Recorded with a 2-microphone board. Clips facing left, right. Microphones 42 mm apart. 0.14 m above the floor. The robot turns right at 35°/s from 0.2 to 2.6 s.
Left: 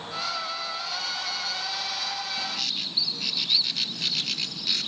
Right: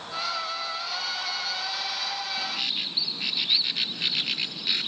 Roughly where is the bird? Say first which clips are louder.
Right 1 dB; centre.